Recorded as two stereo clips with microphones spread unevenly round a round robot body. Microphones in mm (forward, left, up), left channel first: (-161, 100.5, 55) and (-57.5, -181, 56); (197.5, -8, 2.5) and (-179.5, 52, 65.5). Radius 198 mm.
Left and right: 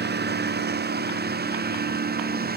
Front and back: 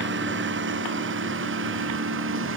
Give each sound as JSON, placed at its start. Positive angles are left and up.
{"t": 0.0, "sound": "a lawn mower", "azimuth_deg": -125}